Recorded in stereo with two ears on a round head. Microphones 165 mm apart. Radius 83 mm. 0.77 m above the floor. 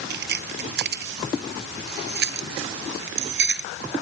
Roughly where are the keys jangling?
Right.